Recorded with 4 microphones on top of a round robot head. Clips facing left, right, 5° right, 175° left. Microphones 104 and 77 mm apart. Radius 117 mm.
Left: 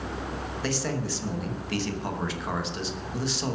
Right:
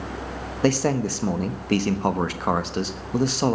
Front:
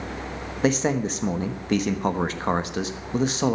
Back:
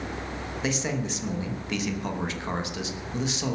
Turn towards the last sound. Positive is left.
turn(degrees=-55)